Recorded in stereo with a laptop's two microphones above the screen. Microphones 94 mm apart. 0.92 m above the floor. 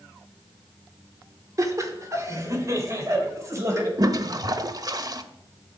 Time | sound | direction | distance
1.6 | laughter | 35° right (ahead or behind) | 2 m
4.0 | a toilet flushing | 40° right (ahead or behind) | 0.8 m